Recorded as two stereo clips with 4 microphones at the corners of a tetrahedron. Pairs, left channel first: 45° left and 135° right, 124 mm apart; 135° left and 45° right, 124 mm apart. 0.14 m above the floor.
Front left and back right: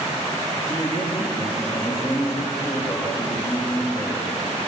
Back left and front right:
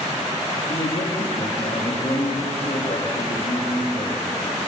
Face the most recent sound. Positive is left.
turn(degrees=90)